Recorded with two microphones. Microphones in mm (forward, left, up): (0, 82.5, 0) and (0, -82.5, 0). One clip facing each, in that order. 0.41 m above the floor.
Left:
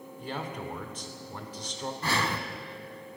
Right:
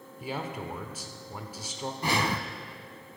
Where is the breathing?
15° right (ahead or behind), 0.6 m.